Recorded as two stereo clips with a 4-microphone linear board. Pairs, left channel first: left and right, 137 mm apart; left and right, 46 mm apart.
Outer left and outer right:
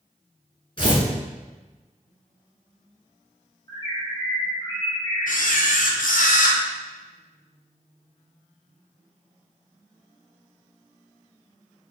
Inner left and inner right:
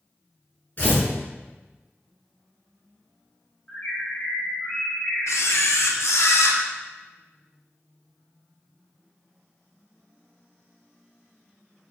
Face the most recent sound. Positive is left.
turn(degrees=75)  # may be behind; listen again after turning